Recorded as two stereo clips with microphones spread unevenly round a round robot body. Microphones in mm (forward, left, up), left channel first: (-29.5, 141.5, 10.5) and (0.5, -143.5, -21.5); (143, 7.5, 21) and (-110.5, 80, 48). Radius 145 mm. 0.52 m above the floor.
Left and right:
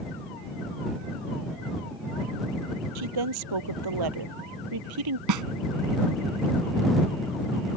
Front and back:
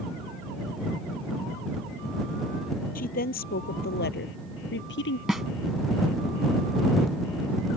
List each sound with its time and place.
3.0 s a woman speaking: 80° right; by 5.2 s 70° right
5.3 s a snare drum: 105° right